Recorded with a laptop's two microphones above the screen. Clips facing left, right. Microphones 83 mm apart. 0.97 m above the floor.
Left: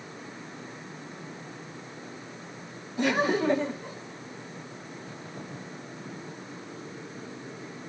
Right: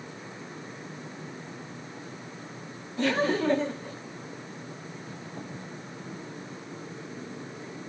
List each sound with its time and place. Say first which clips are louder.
3.0 s laughter: even; 15° left (ahead or behind), 1.8 m